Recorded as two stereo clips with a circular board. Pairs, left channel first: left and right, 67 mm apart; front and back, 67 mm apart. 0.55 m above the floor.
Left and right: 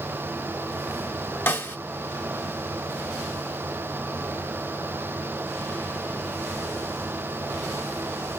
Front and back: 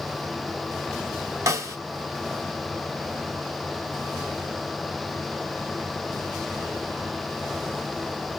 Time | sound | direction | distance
1.5 | a snare drum | 145° left | 1.0 m